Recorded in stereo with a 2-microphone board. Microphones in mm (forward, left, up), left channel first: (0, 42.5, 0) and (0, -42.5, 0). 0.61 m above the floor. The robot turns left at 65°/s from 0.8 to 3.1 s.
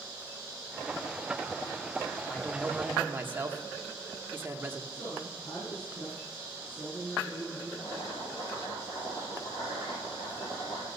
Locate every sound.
2.3 s a man speaking: 20° left, 1.3 m; by 4.8 s 30° right, 1.3 m
4.9 s a woman speaking: 65° left (ahead or behind), 6.5 m
7.8 s boiling: 65° left (ahead or behind), 5.5 m